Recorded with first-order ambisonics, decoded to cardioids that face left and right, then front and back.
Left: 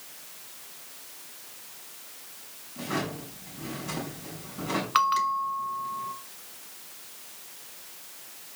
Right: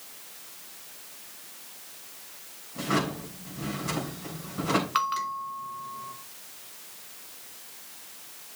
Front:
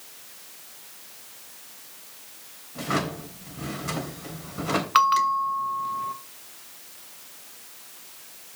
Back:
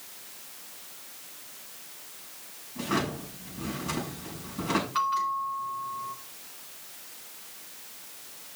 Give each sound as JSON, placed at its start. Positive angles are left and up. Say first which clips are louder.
{"t": 2.8, "sound": "a drawer", "louder": "right 4 dB, front 2 dB", "azimuth_deg": -30, "distance_m": 3.5}
{"t": 5.0, "sound": "a bell", "louder": "left 4 dB, front 10 dB", "azimuth_deg": 10, "distance_m": 0.6}